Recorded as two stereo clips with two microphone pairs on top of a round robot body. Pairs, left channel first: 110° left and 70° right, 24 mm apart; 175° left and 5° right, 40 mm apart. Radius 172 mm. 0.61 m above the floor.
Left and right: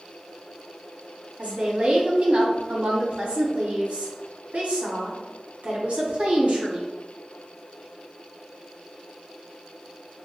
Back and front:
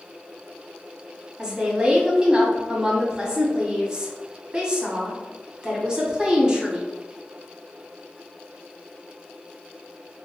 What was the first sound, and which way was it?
A woman speaking, 70° right.